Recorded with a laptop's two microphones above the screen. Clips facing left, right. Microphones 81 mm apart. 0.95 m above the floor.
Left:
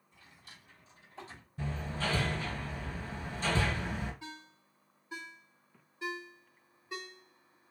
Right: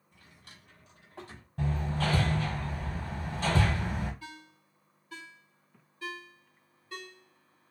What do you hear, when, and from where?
0.1 s a drawer: 60° right (ahead or behind), 0.9 m
1.6 s hammering: 60° right (ahead or behind), 1.4 m
4.2 s a ringtone: 20° left (ahead or behind), 0.8 m